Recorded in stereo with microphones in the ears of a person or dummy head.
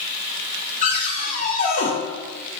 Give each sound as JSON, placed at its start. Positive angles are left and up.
{"t": 0.8, "sound": "a cupboard door", "side_deg": 45, "distance_m": 0.8}